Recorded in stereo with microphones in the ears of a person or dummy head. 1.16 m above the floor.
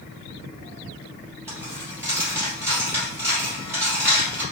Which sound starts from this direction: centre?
A dropped coin, at 1.5 s.